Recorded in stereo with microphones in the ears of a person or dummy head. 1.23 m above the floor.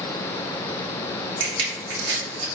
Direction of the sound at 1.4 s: 70° right (ahead or behind).